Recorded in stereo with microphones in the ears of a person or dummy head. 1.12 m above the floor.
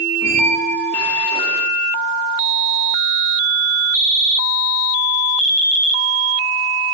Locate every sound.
0.2 s a squeak: 5° left (ahead or behind), 6 m